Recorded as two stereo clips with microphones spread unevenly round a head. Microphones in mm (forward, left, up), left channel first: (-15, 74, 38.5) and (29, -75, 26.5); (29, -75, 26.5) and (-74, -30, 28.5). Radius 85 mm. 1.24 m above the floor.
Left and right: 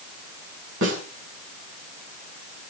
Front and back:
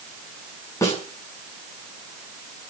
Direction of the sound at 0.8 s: 90° right.